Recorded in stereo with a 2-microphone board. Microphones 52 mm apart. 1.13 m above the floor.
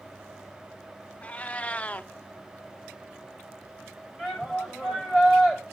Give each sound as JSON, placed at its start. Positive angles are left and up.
{"t": 1.2, "sound": "a cat meowing", "side_deg": 25, "distance_m": 0.5}
{"t": 4.2, "sound": "a shout", "side_deg": -10, "distance_m": 6.5}